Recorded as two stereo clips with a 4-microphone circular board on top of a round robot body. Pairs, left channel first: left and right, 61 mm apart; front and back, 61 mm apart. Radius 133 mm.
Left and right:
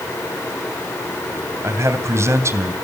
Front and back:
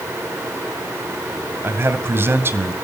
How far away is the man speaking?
About 3 m.